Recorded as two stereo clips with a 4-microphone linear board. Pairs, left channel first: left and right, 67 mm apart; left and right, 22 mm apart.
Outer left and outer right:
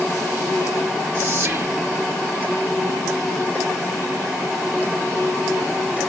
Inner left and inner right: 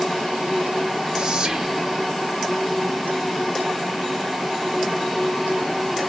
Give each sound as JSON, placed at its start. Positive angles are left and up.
{"t": 1.1, "sound": "whispering", "side_deg": -20, "distance_m": 0.8}